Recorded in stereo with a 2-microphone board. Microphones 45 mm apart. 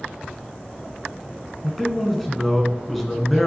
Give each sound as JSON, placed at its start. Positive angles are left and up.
{"t": 1.6, "sound": "a man speaking", "side_deg": 5, "distance_m": 1.4}